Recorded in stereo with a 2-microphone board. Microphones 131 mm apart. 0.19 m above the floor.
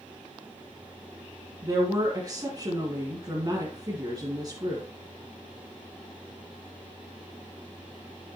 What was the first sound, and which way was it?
A woman speaking, 30° right (ahead or behind).